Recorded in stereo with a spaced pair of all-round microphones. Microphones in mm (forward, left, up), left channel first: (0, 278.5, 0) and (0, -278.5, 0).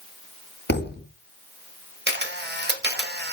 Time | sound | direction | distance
0.7 | a thud | 20° left (ahead or behind) | 0.9 m
2.1 | a camera shutter | 20° right (ahead or behind) | 1.6 m